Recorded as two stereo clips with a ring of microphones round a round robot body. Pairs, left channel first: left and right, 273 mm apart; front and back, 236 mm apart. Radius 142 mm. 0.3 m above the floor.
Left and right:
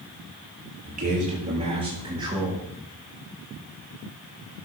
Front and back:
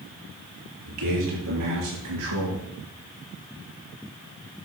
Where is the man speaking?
150° right, 7.5 m; by 2.6 s 170° right, 8 m.